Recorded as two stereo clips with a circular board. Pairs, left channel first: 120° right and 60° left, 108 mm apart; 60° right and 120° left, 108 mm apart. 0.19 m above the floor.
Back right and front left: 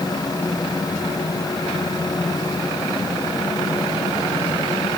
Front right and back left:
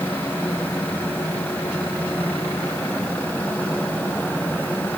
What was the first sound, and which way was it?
Only background noise.